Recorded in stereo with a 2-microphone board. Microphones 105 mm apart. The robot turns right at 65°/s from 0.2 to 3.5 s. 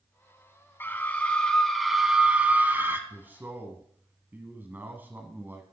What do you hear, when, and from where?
0.8 s a scream: 20° left (ahead or behind), 1.0 m; by 3.0 s 20° right (ahead or behind), 1.0 m
3.1 s a man speaking: 20° right (ahead or behind), 1.2 m